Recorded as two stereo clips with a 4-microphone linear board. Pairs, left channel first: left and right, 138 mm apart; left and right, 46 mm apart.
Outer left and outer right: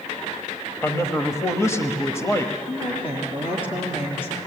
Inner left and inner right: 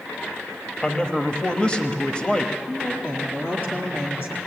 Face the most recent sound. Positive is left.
turn(degrees=45)  # may be behind; listen again after turning